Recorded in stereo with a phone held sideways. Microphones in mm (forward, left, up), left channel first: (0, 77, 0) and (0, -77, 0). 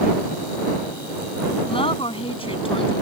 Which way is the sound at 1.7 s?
35° left (ahead or behind).